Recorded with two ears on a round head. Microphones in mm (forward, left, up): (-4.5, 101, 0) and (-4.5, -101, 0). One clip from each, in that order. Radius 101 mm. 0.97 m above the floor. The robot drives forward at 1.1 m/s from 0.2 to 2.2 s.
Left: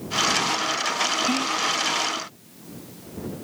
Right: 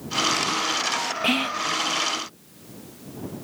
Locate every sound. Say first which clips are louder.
1.2 s whispering: even; 70° right (ahead or behind); by 1.7 s 50° right (ahead or behind)